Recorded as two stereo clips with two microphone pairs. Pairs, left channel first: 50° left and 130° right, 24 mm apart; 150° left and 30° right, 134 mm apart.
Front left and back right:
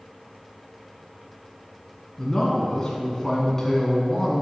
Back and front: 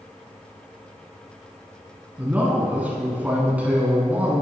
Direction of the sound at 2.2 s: 30° left.